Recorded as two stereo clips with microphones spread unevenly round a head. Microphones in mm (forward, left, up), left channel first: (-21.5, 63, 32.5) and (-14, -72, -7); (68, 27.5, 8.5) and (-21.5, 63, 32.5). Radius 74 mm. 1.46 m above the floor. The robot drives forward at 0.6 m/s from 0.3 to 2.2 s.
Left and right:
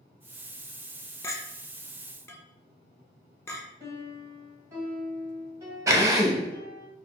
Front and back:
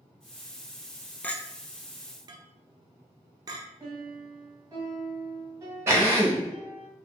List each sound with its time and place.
1.2 s a clink: 60° left, 0.5 m; by 3.6 s 145° left, 0.6 m
3.8 s a piano: 165° right, 1.6 m
5.9 s a drill: 165° right, 0.9 m